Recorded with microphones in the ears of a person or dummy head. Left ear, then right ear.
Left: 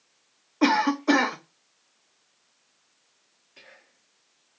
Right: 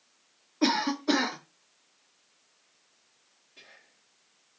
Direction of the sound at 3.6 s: 40° left (ahead or behind).